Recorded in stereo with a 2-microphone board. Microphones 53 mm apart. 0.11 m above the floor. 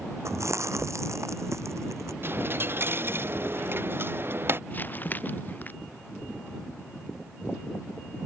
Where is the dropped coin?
45° right (ahead or behind).